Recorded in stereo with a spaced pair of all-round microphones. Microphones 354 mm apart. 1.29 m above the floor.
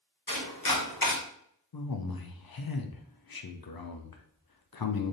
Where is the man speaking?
80° left, 0.6 m.